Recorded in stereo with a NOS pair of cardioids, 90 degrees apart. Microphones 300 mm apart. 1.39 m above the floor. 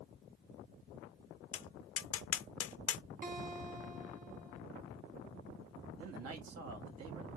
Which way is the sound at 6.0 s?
55° right.